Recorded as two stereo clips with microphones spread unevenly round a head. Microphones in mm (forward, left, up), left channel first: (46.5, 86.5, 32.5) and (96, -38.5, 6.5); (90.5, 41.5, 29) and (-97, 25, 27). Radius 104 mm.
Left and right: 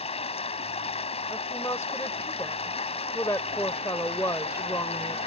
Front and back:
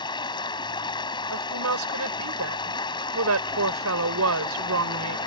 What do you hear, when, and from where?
0.0 s running water: 70° left
1.3 s a woman speaking: 170° right